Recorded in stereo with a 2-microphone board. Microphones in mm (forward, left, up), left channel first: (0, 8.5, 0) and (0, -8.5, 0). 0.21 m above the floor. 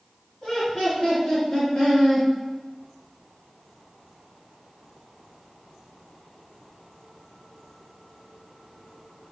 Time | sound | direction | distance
0.4 | laughter | 50° left (ahead or behind) | 2.0 m